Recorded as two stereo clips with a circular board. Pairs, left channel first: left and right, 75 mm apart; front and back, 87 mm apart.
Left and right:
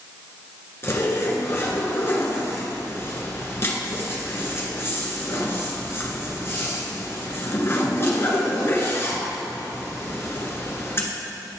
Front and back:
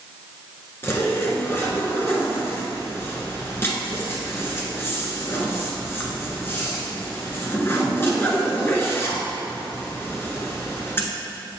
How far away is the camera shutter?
I don't hear a camera shutter.